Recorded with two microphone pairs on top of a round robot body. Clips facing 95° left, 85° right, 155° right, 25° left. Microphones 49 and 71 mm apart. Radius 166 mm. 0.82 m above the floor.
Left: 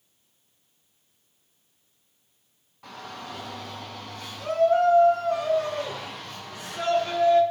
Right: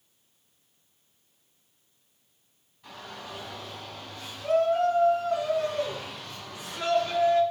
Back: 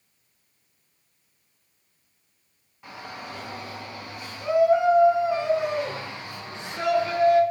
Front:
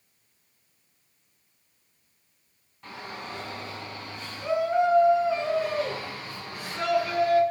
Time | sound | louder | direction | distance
2.8 | a shout | left 3 dB, even | 120° left | 8 m